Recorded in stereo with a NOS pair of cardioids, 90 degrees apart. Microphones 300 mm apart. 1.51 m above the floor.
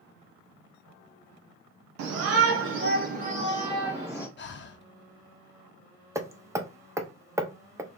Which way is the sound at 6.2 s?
10° right.